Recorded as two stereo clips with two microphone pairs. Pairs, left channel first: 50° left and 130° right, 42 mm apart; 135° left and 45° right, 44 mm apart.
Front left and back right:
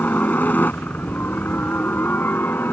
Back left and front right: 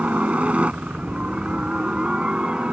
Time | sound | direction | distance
0.0 | a helicopter | 10° left | ?